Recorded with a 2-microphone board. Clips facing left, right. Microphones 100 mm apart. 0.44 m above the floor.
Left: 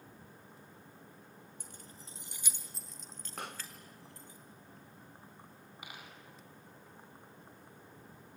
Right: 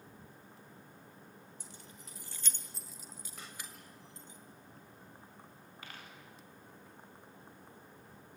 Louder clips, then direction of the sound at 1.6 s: Even; 50° left (ahead or behind).